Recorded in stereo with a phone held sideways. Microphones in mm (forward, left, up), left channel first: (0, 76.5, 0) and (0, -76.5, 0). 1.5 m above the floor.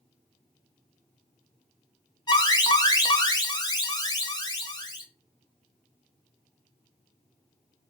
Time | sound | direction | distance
2.3 | an alarm | 25° left (ahead or behind) | 0.5 m